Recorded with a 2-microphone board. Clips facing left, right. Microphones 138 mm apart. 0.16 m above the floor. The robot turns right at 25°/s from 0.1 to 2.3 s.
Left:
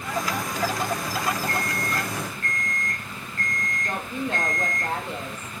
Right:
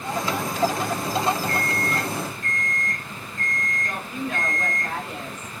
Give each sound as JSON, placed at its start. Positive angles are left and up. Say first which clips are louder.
{"t": 1.5, "sound": "an alarm clock", "louder": "right 2 dB", "side_deg": 75, "distance_m": 3.5}
{"t": 3.8, "sound": "a woman speaking", "louder": "left 3 dB", "side_deg": 30, "distance_m": 4.5}